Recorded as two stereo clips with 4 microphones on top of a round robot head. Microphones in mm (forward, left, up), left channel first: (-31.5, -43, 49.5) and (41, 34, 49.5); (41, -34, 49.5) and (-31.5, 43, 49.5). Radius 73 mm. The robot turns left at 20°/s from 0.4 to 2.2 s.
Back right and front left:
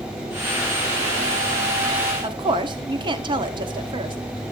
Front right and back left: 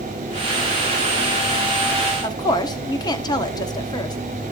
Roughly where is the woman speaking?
Ahead.